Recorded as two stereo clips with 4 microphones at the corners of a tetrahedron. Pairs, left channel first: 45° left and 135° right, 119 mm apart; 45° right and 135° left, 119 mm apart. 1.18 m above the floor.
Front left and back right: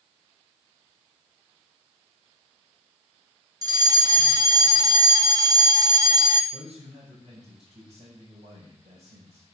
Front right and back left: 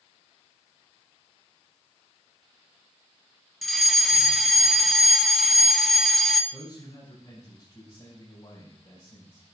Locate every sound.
3.6 s a fire alarm: 135° right, 1.0 m
6.5 s a man speaking: 100° right, 7.5 m